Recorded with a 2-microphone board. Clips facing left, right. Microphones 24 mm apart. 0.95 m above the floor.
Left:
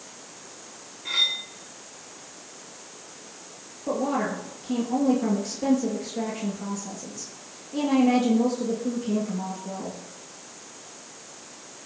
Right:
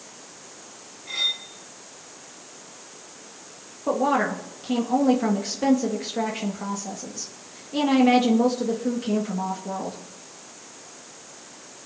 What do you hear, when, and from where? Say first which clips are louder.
1.1 s cutlery clinking: left 2 dB; 80° left, 5.5 m
3.9 s a woman speaking: right 4 dB; 50° right (ahead or behind), 1.6 m